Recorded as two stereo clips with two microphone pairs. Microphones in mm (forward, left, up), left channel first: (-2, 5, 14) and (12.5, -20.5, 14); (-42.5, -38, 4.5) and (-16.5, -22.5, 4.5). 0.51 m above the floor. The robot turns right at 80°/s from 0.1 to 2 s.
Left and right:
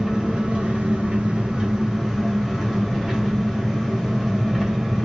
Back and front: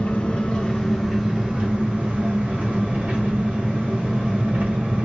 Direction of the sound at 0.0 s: 125° right.